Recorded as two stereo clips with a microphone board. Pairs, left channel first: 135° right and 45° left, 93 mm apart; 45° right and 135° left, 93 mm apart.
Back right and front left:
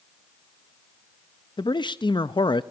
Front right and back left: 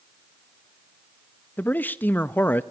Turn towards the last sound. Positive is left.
turn(degrees=-110)